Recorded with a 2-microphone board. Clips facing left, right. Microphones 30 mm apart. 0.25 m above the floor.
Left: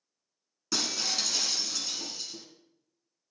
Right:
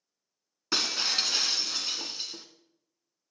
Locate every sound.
0.7 s breaking glass: 40° right (ahead or behind), 1.2 m